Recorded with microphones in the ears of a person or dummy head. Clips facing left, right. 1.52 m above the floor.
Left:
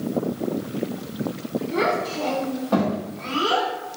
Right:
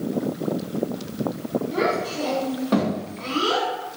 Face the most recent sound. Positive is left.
turn(degrees=-60)  # may be behind; listen again after turning